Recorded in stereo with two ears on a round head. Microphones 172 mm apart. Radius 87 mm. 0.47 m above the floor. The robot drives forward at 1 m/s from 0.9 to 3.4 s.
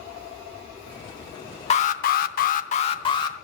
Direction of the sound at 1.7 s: 35° left (ahead or behind).